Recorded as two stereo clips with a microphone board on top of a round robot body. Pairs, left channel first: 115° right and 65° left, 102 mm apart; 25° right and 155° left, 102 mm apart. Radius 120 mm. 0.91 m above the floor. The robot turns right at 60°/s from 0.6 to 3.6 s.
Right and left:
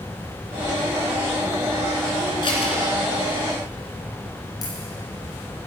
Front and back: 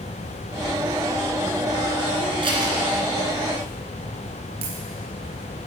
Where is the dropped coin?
170° right, 2.0 m.